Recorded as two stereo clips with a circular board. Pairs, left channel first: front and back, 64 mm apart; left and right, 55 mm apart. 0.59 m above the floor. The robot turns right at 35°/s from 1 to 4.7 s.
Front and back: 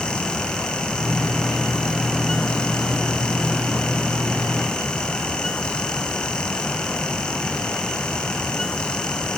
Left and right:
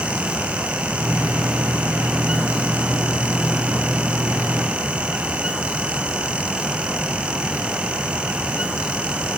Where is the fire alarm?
I don't hear a fire alarm.